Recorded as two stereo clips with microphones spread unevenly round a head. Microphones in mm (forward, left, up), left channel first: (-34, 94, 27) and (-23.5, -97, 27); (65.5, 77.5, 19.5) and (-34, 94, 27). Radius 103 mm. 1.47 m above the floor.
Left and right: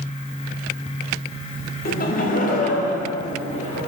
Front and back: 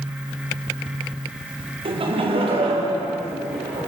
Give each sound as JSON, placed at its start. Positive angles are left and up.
{"t": 1.9, "sound": "laughter", "azimuth_deg": 135, "distance_m": 1.2}